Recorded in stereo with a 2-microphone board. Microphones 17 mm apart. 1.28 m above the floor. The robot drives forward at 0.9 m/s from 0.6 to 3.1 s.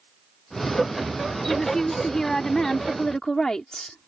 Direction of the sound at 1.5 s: 30° left (ahead or behind).